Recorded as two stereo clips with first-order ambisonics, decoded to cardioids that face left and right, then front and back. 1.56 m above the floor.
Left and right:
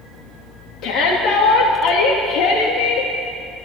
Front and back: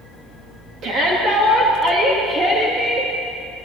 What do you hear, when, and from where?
0.8 s a shout: 130° left, 3 m; by 3.1 s 100° left, 3 m